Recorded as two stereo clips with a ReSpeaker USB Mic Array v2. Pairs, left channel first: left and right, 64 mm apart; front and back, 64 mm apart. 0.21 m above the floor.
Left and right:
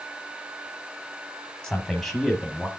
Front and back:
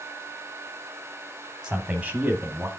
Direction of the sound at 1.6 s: 130° left.